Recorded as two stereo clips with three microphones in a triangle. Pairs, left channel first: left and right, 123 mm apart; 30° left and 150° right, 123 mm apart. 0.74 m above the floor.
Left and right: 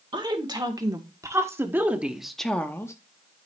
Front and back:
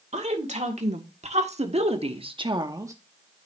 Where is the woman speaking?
140° right, 2 m; by 2.9 s 150° left, 0.9 m.